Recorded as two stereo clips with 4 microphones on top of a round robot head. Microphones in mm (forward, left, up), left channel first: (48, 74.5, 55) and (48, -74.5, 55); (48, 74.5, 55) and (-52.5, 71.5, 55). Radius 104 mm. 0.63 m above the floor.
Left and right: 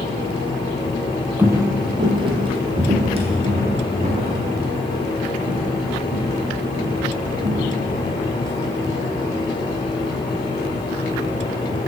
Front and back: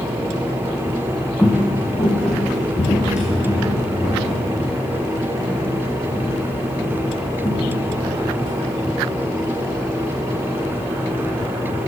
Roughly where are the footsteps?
Ahead right.